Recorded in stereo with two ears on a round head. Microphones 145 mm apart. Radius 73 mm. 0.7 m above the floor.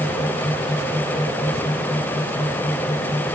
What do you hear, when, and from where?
Only background noise.